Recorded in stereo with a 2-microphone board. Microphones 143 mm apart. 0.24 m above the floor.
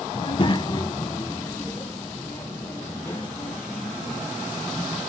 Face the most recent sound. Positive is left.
turn(degrees=10)  # may be behind; listen again after turning